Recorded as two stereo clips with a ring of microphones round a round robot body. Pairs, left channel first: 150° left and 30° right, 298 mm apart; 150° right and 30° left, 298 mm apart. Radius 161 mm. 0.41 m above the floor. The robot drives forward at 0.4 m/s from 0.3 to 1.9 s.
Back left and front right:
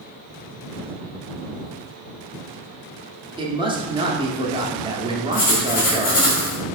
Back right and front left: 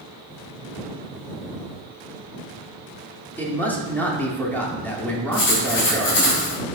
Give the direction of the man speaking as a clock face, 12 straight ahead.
3 o'clock.